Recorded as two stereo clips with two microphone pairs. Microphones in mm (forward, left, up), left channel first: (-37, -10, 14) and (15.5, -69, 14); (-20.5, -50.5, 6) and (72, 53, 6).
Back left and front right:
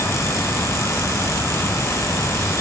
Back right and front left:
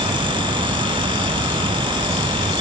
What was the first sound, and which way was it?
Only background noise.